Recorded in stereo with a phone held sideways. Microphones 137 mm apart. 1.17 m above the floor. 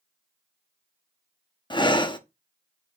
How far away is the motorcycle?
I don't hear a motorcycle.